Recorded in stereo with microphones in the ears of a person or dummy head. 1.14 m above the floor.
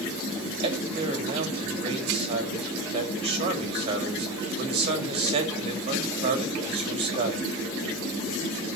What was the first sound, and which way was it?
A man speaking, 30° right (ahead or behind).